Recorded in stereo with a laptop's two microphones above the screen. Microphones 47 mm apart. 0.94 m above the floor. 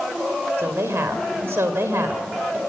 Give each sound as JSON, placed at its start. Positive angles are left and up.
{"t": 0.6, "sound": "a woman speaking", "side_deg": -65, "distance_m": 3.5}